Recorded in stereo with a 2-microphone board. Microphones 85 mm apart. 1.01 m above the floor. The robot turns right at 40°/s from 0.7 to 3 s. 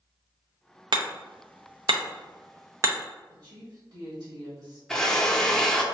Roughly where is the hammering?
Right.